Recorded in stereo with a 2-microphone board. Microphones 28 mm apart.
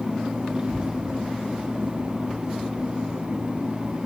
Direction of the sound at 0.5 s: 20° right (ahead or behind).